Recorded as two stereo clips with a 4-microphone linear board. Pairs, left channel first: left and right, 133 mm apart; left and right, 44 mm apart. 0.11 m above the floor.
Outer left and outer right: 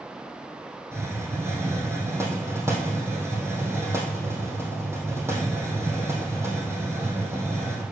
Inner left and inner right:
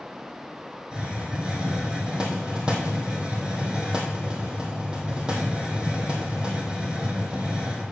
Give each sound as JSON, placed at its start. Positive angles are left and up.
{"t": 0.9, "sound": "a hiss", "side_deg": -20, "distance_m": 2.5}